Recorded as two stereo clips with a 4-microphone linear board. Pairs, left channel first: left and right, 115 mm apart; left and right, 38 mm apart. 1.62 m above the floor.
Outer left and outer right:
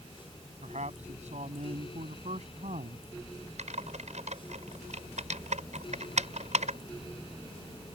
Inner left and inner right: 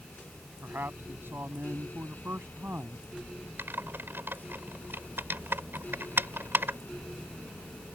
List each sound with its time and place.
0.6 s a man speaking: 80° right; by 3.0 s 75° right (ahead or behind)
3.6 s typing on a keyboard: 80° right